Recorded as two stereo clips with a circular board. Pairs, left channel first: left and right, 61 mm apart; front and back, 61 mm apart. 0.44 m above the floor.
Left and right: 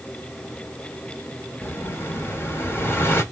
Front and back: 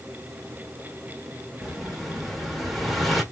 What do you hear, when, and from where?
1.6 s an explosion: 90° left, 1.4 m